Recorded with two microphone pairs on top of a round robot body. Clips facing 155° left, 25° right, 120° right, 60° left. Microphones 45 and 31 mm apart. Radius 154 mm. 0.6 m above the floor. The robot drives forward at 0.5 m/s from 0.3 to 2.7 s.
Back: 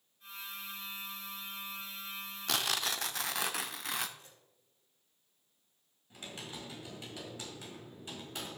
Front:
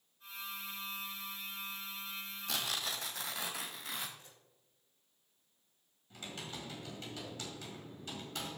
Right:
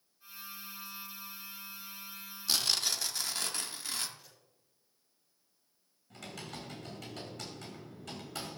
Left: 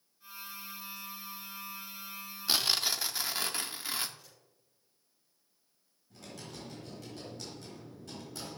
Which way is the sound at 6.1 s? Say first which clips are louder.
Even, right 2 dB; 135° right.